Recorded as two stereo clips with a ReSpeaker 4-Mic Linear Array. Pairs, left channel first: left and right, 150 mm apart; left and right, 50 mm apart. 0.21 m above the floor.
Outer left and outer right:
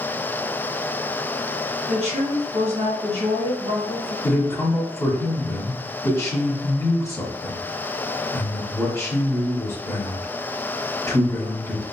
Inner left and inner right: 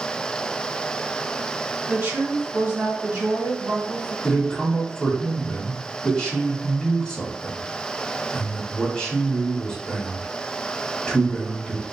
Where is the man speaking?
20° left (ahead or behind), 1.5 m.